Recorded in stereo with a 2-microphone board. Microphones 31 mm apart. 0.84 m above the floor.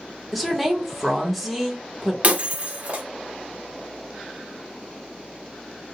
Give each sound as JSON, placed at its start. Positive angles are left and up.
{"t": 0.3, "sound": "a woman speaking", "side_deg": -5, "distance_m": 0.9}
{"t": 2.2, "sound": "breaking glass", "side_deg": -45, "distance_m": 0.5}